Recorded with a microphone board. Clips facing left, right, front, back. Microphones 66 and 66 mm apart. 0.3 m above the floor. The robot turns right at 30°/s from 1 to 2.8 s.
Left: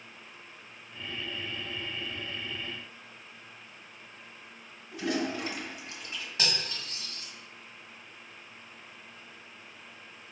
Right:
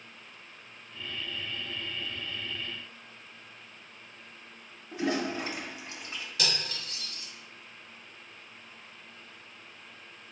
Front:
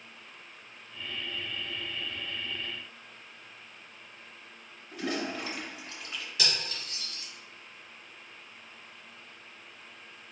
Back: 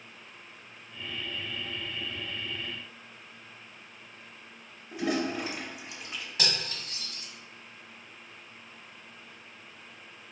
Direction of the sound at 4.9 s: 120° right.